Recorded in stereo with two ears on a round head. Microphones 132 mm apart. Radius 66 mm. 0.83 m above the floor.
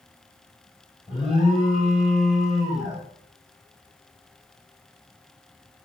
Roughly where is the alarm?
Centre.